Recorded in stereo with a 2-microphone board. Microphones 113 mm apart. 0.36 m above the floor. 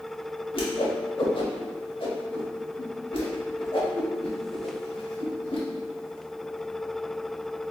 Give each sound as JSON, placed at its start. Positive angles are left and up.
{"t": 0.5, "sound": "a whoosh", "side_deg": 50, "distance_m": 1.0}